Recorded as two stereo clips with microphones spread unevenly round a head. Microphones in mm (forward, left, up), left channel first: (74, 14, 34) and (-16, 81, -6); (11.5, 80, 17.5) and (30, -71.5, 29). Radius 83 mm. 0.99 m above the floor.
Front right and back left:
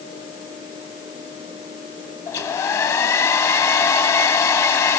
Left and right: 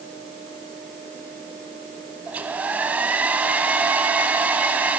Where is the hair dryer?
10° right, 1.1 m.